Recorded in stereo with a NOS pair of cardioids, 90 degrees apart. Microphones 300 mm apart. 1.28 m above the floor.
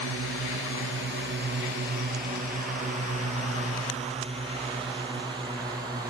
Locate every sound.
0.0 s a drone: 50° right; by 6.1 s 10° right